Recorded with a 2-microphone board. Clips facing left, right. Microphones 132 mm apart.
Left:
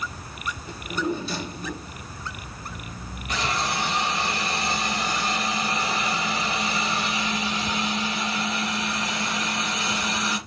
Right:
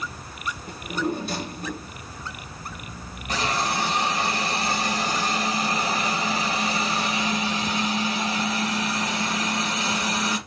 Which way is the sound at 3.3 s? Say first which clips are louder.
Right 2 dB; 35° right (ahead or behind).